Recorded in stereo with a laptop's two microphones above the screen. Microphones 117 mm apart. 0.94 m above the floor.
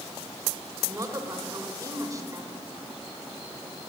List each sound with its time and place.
0.8 s a woman speaking: 30° right (ahead or behind), 3.5 m